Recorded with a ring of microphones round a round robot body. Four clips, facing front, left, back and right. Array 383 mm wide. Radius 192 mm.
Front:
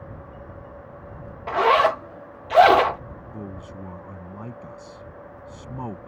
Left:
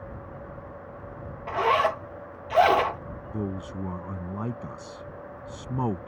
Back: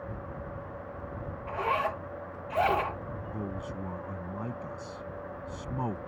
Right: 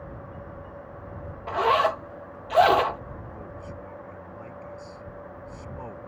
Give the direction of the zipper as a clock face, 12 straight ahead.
12 o'clock.